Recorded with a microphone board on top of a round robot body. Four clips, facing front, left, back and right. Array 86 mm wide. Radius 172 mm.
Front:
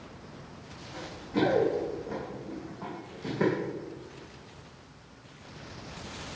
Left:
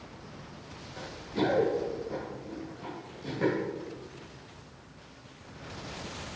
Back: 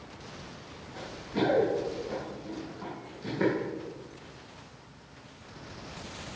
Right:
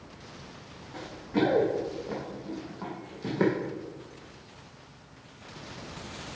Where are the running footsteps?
75° right, 3 m; by 3.5 s 85° right, 1.9 m.